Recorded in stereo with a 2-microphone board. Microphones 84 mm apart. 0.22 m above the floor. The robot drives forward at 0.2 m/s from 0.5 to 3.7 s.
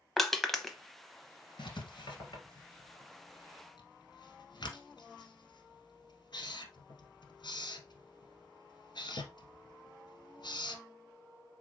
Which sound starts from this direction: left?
Writing, at 1.6 s.